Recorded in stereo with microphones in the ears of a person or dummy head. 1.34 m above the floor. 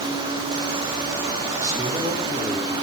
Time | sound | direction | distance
1.6 | a man speaking | 20° right (ahead or behind) | 8 m